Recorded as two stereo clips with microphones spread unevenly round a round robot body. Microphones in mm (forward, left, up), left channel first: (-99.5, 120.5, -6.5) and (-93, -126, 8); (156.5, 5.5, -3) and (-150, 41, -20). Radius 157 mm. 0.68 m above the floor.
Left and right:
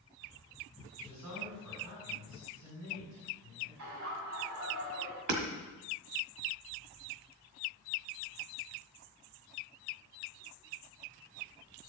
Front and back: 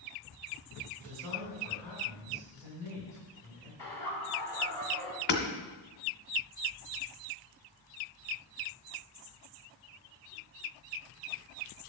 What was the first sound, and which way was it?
A man speaking, 90° right.